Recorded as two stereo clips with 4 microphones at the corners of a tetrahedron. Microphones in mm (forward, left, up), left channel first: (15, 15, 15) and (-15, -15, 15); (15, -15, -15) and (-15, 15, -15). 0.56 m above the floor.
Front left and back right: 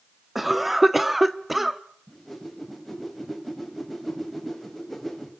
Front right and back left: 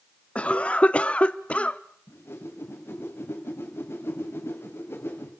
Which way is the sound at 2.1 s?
40° right.